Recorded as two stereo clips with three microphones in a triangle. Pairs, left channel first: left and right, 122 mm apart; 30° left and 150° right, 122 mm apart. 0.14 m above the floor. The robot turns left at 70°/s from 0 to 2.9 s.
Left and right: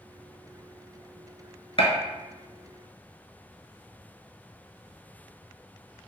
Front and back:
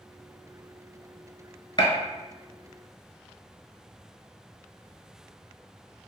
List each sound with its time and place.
1.8 s a gunshot: 70° left, 0.6 m; by 1.9 s 60° left, 0.6 m